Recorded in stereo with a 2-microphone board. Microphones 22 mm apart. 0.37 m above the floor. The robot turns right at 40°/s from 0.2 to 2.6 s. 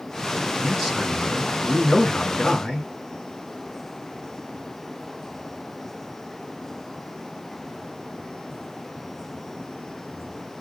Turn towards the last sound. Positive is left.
turn(degrees=65)